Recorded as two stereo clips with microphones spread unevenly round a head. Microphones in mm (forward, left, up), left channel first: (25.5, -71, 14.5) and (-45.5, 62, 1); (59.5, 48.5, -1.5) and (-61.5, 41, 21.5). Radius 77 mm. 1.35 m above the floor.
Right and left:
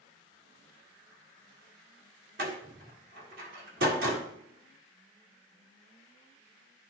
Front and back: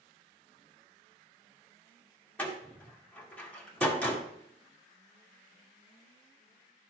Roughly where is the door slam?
Left.